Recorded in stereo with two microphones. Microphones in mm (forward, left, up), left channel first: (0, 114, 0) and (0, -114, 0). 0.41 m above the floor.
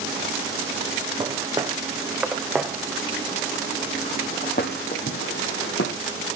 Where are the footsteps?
20° right (ahead or behind), 3 m; by 6.0 s 70° left (ahead or behind), 2 m.